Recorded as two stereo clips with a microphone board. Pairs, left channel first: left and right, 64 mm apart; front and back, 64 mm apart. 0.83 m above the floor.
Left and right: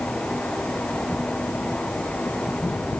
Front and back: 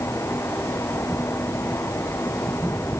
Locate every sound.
Only background noise.